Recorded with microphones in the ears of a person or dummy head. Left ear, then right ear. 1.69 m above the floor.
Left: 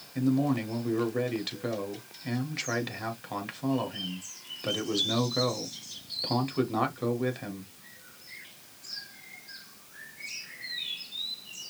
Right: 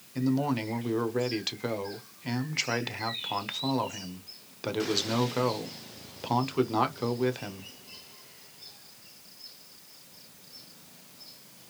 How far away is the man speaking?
About 0.9 m.